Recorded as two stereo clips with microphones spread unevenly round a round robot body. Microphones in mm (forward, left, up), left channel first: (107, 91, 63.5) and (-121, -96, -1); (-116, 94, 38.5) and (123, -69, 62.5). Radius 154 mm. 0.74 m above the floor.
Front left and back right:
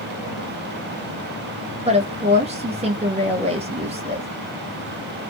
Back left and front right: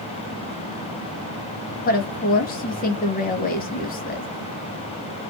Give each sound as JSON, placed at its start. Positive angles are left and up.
{"t": 1.9, "sound": "a woman speaking", "azimuth_deg": 180, "distance_m": 0.8}